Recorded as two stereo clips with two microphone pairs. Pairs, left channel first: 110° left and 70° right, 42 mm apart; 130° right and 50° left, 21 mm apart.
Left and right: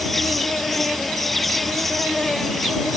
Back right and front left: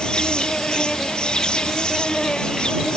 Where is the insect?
165° right.